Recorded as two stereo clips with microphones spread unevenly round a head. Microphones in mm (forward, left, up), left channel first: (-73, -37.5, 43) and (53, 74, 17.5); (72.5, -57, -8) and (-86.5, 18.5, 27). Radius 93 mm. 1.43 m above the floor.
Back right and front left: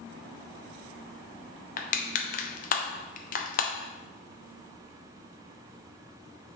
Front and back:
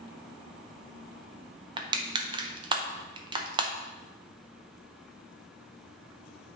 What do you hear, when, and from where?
1.8 s crushing: 155° right, 0.6 m